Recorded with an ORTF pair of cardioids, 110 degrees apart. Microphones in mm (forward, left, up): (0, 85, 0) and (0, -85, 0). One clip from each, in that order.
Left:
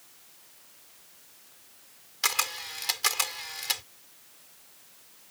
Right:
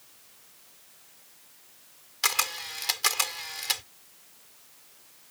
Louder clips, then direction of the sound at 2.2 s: Right 1 dB; 10° right.